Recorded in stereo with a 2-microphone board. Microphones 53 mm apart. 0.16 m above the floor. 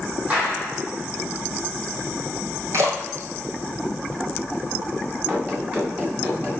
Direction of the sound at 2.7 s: 60° right (ahead or behind).